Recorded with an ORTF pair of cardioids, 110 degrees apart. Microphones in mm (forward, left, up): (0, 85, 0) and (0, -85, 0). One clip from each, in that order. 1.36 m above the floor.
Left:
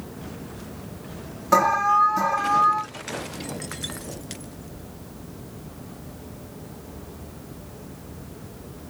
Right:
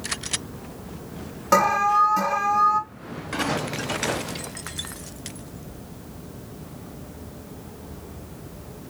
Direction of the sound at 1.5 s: 25° right.